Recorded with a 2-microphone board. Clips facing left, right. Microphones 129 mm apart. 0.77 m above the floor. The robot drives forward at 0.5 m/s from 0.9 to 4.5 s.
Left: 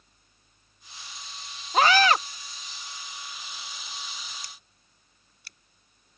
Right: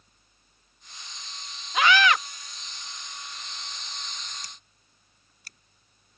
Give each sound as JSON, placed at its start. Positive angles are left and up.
{"t": 1.7, "sound": "a scream", "side_deg": 40}
{"t": 4.4, "sound": "scissors", "side_deg": -45}